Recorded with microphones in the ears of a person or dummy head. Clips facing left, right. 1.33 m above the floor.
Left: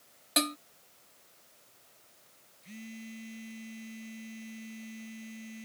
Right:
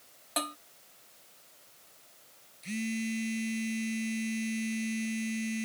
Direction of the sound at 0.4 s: 30° left (ahead or behind).